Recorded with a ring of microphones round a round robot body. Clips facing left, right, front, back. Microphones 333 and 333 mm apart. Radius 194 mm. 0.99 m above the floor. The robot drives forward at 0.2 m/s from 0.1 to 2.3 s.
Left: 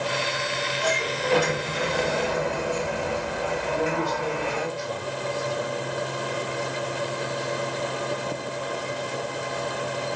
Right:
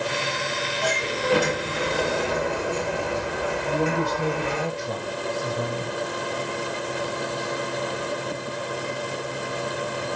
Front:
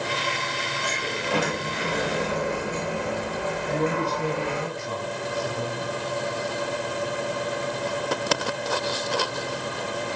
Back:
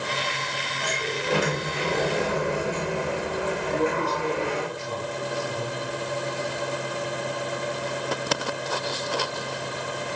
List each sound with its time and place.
0.8 s a sliding door: 115° right, 2.5 m; by 4.7 s 125° right, 2.5 m
3.7 s a man speaking: 70° right, 1.3 m